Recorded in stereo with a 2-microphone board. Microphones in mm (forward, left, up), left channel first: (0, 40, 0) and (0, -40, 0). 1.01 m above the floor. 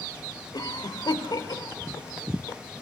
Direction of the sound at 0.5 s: 55° left (ahead or behind).